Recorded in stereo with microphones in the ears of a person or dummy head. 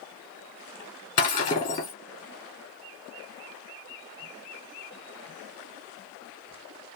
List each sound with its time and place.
1.2 s breaking glass: 20° left (ahead or behind), 1.6 m